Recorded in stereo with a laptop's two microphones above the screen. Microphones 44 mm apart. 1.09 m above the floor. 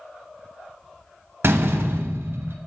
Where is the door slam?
60° right (ahead or behind), 1.0 m.